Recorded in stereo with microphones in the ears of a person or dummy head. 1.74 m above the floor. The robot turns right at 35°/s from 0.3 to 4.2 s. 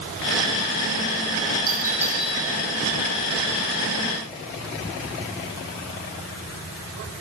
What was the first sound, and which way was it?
A doorbell, 20° right (ahead or behind).